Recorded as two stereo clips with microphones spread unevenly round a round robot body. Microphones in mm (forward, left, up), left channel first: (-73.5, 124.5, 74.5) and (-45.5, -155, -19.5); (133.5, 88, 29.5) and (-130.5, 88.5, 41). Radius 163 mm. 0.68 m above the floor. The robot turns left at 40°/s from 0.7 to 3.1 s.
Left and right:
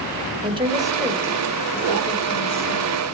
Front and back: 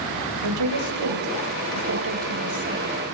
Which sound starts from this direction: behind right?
A woman speaking, at 0.4 s.